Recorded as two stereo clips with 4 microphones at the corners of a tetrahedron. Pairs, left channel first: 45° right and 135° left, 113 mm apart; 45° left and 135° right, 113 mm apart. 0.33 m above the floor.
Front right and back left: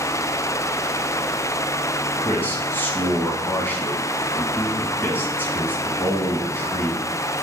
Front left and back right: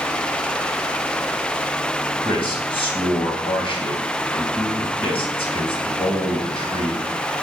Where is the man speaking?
25° left, 2.5 m.